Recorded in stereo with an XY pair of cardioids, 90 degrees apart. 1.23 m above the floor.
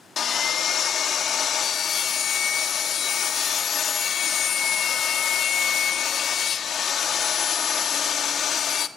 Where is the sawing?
60° left, 1.6 m.